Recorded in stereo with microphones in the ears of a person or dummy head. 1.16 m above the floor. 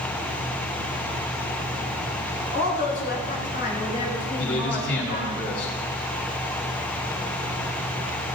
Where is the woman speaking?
35° left (ahead or behind), 5.5 m; by 5.4 s 30° left (ahead or behind), 7 m.